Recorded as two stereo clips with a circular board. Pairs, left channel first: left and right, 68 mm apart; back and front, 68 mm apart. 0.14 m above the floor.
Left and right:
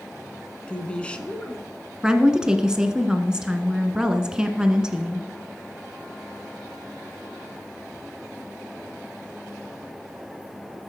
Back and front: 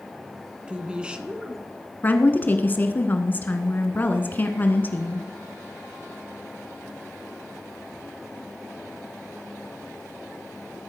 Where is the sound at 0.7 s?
45° left, 1.2 m.